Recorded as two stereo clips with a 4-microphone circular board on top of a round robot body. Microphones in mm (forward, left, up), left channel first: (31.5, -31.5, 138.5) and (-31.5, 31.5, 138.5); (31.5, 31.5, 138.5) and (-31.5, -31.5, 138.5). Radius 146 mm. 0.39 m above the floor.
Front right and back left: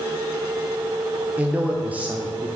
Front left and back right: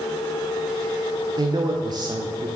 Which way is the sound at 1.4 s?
155° right.